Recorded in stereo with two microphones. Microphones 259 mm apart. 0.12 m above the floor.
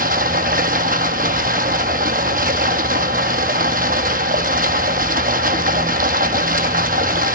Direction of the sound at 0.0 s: 30° right (ahead or behind).